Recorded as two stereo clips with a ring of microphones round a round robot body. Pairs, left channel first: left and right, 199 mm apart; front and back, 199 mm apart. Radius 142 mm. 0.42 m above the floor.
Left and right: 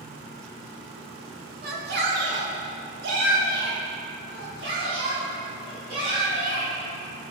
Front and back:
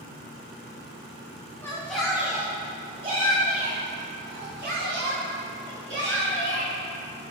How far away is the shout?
About 1.5 m.